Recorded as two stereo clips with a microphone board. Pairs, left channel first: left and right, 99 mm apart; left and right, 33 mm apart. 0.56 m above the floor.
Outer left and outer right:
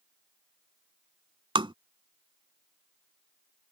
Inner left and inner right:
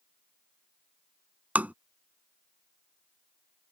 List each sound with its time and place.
1.6 s tapping: 60° right (ahead or behind)